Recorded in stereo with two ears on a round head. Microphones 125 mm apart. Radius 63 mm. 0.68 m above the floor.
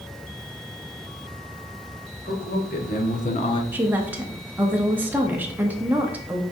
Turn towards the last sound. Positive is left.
turn(degrees=-15)  # may be behind; listen again after turning